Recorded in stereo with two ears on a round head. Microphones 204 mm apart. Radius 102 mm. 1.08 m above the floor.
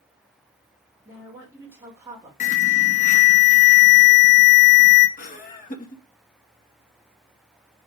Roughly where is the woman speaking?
Centre.